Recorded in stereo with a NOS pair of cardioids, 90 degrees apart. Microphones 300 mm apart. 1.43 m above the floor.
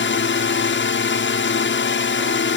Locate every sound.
0.0 s a drone: 40° left